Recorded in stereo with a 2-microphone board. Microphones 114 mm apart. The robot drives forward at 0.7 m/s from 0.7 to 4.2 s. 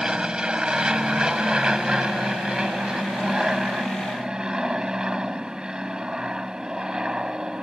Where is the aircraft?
5° right (ahead or behind).